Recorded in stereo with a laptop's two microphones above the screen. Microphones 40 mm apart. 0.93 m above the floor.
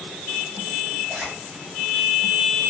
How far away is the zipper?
About 6 m.